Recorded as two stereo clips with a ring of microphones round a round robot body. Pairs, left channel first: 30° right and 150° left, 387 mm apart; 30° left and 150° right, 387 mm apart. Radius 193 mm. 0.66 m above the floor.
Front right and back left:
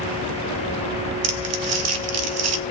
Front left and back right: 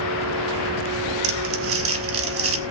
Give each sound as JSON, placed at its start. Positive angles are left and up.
{"t": 1.2, "sound": "crumpling", "azimuth_deg": 175, "distance_m": 1.0}